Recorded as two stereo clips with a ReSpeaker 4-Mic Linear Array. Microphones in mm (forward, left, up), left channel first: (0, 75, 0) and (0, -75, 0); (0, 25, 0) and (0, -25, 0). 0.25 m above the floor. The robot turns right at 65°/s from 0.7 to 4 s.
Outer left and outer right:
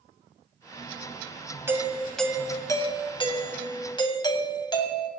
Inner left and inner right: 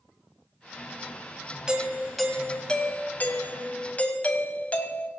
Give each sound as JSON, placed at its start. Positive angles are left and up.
{"t": 1.7, "sound": "a doorbell", "azimuth_deg": -30, "distance_m": 2.0}